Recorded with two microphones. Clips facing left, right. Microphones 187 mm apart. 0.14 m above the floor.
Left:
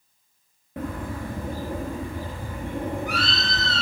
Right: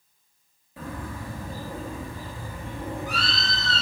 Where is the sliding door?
No sliding door in this recording.